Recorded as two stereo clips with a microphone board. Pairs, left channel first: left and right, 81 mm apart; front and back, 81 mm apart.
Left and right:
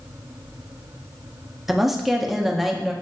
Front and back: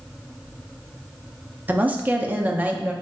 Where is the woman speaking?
170° right, 0.6 m.